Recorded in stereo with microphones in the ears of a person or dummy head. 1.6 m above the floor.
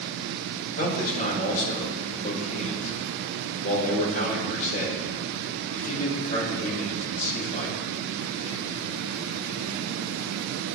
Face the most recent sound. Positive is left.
turn(degrees=50)  # may be behind; listen again after turning